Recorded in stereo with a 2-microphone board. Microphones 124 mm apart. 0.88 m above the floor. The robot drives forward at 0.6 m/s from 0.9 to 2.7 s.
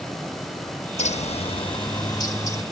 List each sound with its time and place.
1.0 s a bird: 70° left (ahead or behind), 0.5 m; by 2.6 s 25° left (ahead or behind), 1.2 m